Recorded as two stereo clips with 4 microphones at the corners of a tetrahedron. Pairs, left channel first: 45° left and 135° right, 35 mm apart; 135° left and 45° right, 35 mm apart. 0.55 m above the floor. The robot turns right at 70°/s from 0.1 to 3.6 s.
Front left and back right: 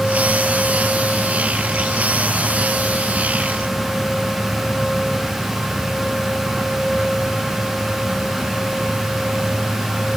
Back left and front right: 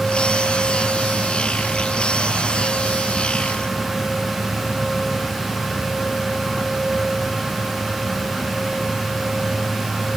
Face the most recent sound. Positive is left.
No sound to turn to.